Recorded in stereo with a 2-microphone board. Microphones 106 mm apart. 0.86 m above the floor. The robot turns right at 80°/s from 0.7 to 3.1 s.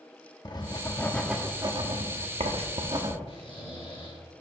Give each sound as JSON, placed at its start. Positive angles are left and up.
{"t": 0.5, "sound": "writing", "side_deg": 40, "distance_m": 1.1}
{"t": 3.3, "sound": "snoring", "side_deg": 60, "distance_m": 4.0}